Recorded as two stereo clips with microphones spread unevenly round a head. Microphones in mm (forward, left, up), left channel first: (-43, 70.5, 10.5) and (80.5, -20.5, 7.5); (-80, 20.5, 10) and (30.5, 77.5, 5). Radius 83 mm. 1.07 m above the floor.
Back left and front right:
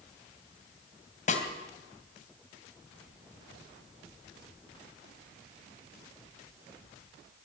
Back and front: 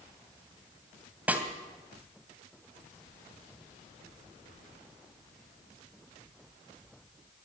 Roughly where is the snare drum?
Left.